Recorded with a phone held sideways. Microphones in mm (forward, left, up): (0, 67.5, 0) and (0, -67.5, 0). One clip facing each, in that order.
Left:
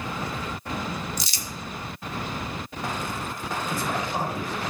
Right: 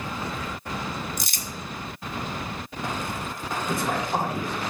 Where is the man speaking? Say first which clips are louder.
Right 3 dB; 70° right (ahead or behind), 5 m.